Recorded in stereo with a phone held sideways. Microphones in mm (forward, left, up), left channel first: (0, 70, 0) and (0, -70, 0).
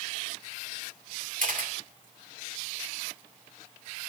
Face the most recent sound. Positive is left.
turn(degrees=-65)  # may be behind; listen again after turning